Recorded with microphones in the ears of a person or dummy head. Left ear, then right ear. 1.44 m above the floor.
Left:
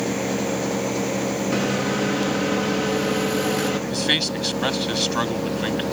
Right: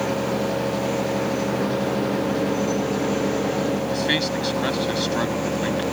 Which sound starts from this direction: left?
A microwave, at 1.5 s.